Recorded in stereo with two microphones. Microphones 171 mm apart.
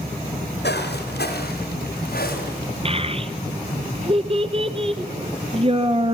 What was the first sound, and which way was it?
Footsteps, 80° left.